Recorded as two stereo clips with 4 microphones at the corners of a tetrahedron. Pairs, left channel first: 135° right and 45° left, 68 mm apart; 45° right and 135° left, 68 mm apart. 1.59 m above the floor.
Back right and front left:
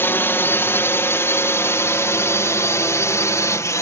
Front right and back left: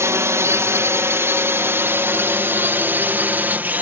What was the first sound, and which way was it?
A drone, 170° left.